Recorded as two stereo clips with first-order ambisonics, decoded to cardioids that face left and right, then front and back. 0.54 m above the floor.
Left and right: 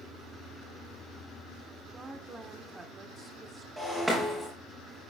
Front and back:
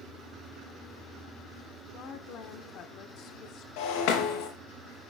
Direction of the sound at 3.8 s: 10° right.